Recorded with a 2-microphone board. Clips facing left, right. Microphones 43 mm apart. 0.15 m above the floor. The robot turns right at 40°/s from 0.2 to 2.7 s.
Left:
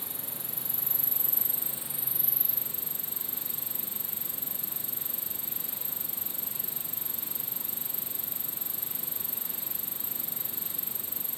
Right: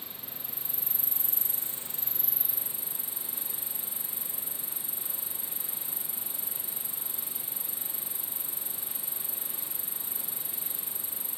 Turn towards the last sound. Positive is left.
turn(degrees=-165)